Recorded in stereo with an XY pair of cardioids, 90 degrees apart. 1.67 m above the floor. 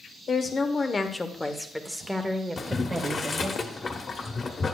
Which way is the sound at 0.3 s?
50° left.